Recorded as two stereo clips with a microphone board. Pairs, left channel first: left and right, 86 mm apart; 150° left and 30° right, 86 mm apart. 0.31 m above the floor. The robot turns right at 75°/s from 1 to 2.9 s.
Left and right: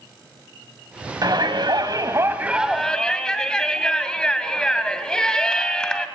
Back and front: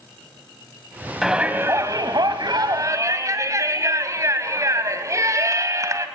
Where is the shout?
115° right, 2 m; by 6.1 s 10° left, 2 m.